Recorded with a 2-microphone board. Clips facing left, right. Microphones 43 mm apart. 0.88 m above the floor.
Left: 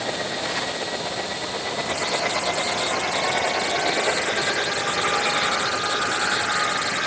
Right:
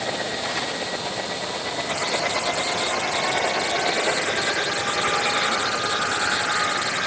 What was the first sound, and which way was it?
Only background noise.